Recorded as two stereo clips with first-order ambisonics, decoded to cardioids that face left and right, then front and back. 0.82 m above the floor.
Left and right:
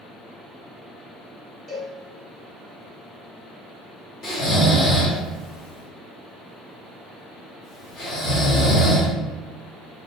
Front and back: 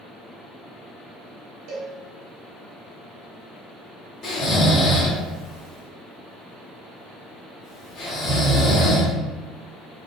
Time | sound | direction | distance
1.7 | a cowbell | 155° left | 1.0 m
4.2 | snoring | 50° left | 1.0 m